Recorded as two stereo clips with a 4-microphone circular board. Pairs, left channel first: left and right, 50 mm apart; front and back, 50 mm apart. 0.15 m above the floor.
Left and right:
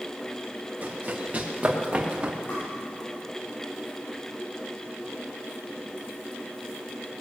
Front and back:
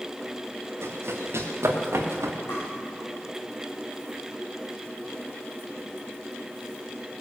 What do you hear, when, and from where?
0.8 s running footsteps: 145° right, 3 m; by 2.4 s 160° right, 3.5 m
2.5 s tapping: 35° left, 6 m